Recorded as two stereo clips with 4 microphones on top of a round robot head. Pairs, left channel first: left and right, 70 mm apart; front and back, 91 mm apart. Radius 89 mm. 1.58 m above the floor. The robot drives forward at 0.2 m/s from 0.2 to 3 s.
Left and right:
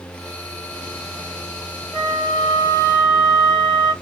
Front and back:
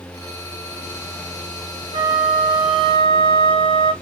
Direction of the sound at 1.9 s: 165° left.